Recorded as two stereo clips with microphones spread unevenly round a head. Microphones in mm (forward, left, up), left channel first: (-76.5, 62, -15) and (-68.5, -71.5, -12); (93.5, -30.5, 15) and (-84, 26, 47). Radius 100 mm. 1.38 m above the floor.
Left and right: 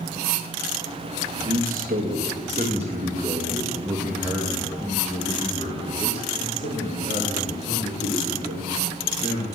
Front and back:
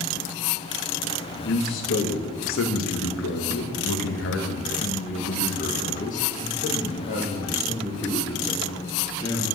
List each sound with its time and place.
1.4 s a man speaking: 40° right, 2.5 m; by 9.4 s 60° left, 3.5 m